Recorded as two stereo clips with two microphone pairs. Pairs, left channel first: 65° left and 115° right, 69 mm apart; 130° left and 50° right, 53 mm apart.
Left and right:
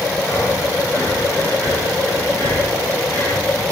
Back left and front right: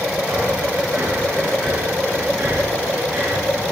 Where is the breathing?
5° left, 9 m.